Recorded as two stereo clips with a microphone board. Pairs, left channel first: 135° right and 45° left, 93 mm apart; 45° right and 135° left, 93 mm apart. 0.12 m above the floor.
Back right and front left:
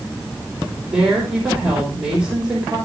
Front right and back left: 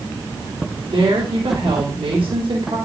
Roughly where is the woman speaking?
Behind left.